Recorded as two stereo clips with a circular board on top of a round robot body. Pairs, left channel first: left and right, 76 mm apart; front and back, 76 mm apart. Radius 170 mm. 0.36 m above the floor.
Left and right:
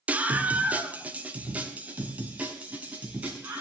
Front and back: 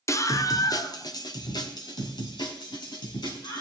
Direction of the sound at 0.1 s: 25° right.